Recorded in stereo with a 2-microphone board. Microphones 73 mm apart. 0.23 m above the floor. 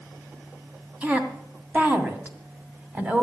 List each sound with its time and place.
1.0 s a woman speaking: 25° right (ahead or behind), 2 m